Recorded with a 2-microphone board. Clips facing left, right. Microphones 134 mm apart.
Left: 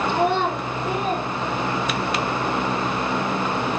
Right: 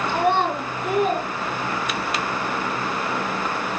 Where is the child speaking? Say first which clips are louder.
Right 2 dB; 70° right (ahead or behind), 4.5 m; by 2.2 s 80° right, 6 m.